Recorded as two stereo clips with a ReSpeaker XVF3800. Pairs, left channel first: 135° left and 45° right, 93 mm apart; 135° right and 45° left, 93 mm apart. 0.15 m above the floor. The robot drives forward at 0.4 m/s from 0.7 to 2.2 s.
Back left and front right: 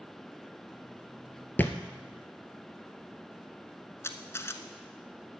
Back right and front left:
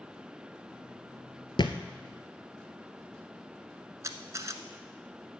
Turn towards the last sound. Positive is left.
turn(degrees=85)